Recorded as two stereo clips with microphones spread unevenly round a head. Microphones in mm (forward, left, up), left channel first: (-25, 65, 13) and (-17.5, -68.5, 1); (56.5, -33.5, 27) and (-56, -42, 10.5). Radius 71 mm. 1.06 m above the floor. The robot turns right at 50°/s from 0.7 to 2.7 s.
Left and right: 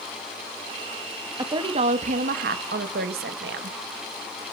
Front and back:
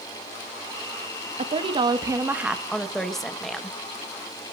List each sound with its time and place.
1.4 s a woman speaking: 150° right, 1.2 m; by 3.8 s 85° right, 1.2 m